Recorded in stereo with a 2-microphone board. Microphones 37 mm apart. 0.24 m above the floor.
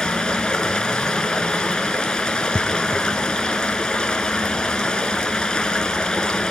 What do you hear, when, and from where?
0.0 s running water: 20° left (ahead or behind), 1.6 m